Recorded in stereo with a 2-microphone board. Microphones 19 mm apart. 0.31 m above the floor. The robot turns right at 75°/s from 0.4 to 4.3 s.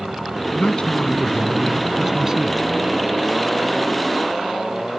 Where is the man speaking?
85° left; by 2.6 s 120° right.